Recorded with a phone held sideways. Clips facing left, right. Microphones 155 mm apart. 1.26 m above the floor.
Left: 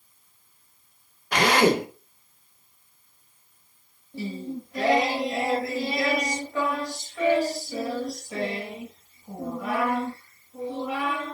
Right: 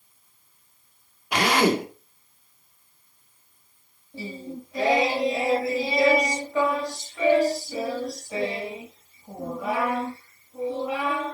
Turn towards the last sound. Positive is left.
turn(degrees=-5)  # may be behind; listen again after turning